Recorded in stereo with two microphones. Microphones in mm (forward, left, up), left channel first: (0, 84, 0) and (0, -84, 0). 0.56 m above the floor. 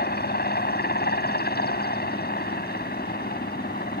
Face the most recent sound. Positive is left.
turn(degrees=65)  # may be behind; listen again after turning